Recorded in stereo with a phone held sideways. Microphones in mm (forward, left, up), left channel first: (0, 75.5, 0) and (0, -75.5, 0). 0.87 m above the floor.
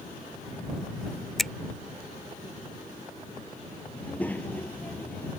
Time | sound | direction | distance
1.4 | a finger snap | centre (ahead or behind) | ?
4.0 | a child speaking | 10° left (ahead or behind) | ?